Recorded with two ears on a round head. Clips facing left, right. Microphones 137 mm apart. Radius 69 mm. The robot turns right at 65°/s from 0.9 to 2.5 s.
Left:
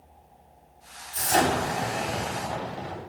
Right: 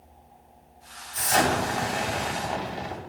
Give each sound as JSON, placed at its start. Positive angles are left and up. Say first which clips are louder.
{"t": 1.1, "sound": "an explosion", "louder": "even", "azimuth_deg": 120, "distance_m": 3.0}